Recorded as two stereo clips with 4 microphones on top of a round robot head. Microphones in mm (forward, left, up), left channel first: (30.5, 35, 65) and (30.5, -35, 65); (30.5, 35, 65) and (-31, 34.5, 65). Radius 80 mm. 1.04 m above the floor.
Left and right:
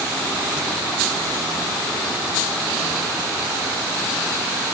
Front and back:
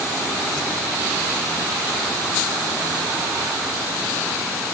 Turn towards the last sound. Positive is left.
No sound to turn to.